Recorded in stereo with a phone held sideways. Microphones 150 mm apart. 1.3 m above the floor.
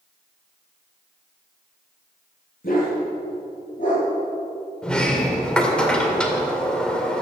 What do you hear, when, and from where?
2.6 s a dog barking: 65° left (ahead or behind), 7 m; by 4.1 s 60° left (ahead or behind), 9 m
4.8 s a sliding door: 5° left (ahead or behind), 2 m